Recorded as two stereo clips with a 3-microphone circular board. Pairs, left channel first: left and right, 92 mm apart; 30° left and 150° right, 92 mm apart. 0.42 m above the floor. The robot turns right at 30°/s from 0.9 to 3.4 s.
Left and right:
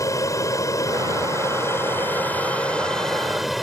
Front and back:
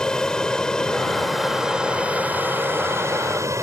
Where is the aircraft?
105° left; by 3.6 s straight behind.